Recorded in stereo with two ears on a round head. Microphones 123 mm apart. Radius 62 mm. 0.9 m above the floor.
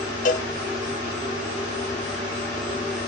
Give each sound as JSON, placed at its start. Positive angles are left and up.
{"t": 0.2, "sound": "a cowbell", "side_deg": 65, "distance_m": 1.5}